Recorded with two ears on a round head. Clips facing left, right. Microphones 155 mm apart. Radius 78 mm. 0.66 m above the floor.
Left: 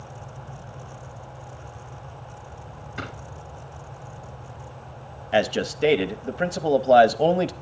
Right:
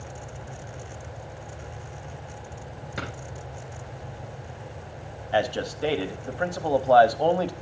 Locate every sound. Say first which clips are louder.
3.0 s a drawer: even; 90° right, 5 m
5.3 s a man speaking: left 3 dB; 25° left (ahead or behind), 0.7 m